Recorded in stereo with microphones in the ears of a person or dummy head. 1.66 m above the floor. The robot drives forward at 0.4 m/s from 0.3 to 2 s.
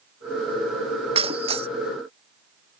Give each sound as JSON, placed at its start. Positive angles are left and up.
{"t": 1.1, "sound": "breaking glass", "side_deg": -35}